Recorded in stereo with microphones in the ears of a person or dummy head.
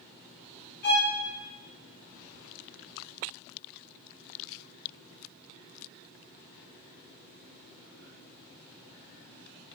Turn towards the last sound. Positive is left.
turn(degrees=55)  # may be behind; listen again after turning